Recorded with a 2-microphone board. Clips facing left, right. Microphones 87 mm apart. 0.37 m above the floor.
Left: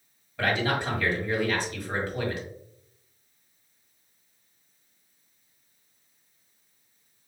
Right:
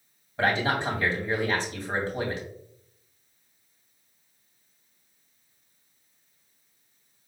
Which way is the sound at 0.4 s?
25° right (ahead or behind).